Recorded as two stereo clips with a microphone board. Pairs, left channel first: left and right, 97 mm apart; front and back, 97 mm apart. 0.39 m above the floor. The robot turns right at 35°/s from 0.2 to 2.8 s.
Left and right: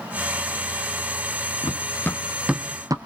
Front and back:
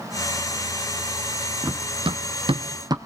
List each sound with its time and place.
1.6 s running footsteps: 120° left, 0.9 m; by 3.0 s 135° right, 1.0 m